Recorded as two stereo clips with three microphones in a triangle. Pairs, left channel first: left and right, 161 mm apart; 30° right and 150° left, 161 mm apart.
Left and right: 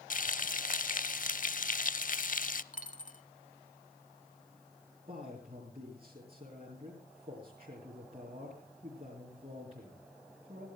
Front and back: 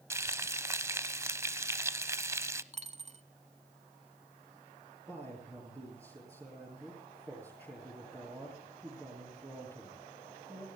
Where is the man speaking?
140° right, 4.5 m.